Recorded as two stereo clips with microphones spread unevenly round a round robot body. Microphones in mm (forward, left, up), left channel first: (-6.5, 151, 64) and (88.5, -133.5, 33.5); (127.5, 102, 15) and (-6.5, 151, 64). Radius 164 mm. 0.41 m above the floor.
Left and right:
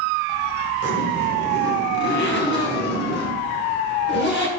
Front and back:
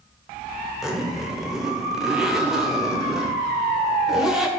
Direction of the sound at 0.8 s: 60° left.